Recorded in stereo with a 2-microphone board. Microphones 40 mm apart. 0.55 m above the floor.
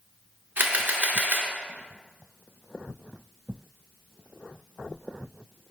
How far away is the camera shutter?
About 1.4 m.